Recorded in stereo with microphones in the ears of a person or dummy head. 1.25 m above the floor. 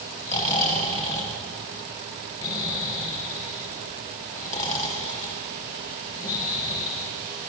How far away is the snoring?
About 1.5 m.